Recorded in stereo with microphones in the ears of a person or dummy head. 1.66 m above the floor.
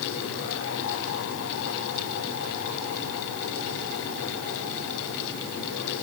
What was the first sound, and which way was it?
Only background noise.